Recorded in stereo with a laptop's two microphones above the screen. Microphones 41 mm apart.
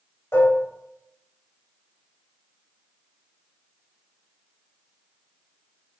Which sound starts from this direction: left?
Dishes clattering, at 0.3 s.